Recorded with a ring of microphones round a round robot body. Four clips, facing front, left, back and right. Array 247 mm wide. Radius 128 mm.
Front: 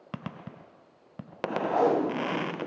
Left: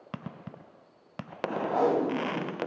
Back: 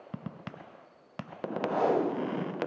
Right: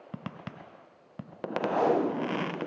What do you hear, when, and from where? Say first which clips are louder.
1.7 s tape being pulled: even, front 2 dB; 25° left, 1.6 m